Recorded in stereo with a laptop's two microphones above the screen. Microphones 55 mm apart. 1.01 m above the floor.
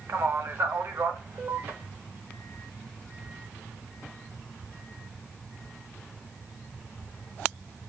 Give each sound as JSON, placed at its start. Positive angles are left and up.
{"t": 0.1, "sound": "a man speaking", "side_deg": -50, "distance_m": 0.8}